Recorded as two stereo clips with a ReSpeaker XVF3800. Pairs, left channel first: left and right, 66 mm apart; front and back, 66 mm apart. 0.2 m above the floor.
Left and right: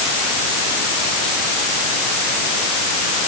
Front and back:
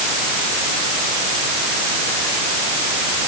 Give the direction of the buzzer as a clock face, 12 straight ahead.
I don't hear a buzzer.